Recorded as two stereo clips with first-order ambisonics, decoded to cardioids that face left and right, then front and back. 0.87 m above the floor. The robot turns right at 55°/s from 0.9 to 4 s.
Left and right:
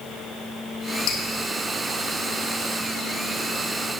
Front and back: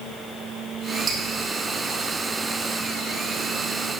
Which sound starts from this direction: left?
Dripping, at 1.1 s.